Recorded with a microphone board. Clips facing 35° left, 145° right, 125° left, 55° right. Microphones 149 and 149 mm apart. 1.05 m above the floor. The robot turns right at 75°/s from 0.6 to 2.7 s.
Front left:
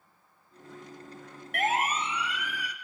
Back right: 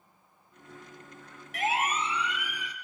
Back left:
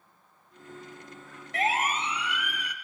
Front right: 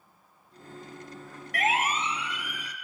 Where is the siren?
60° left, 4 m; by 2.7 s 150° left, 5.5 m.